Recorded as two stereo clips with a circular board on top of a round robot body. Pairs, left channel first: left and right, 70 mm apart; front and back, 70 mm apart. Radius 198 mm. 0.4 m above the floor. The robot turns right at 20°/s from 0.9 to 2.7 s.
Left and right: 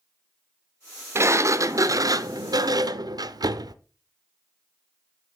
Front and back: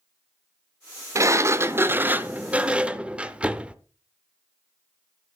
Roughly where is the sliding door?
Behind right.